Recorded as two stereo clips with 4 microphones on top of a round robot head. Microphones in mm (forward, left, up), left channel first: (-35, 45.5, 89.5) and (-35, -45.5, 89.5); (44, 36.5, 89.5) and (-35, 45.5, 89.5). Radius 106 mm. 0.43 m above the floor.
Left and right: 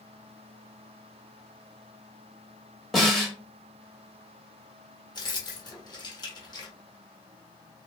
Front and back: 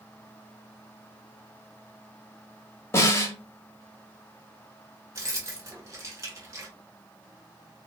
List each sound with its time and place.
2.9 s a snare drum: straight ahead, 1.3 m
5.2 s keys jangling: 125° left, 1.3 m